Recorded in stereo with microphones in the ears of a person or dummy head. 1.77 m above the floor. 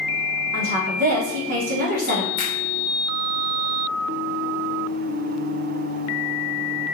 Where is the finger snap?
35° left (ahead or behind), 0.5 m.